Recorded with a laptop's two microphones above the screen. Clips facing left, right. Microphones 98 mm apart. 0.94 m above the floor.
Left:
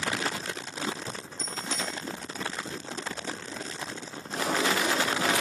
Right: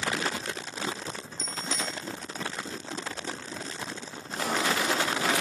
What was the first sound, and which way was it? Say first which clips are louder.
A bicycle bell: even; 60° left (ahead or behind).